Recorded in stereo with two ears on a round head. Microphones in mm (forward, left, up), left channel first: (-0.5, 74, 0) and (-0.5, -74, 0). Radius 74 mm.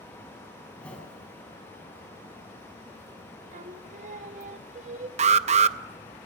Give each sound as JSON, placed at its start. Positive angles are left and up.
{"t": 0.7, "sound": "a whoosh", "side_deg": 10, "distance_m": 5.0}
{"t": 3.5, "sound": "singing", "side_deg": -45, "distance_m": 1.1}
{"t": 5.2, "sound": "an alarm", "side_deg": -40, "distance_m": 0.7}